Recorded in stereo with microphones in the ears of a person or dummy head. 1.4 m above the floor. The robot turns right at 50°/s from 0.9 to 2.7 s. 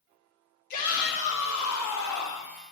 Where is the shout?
45° left, 2.5 m; by 2.5 s 125° left, 2.5 m.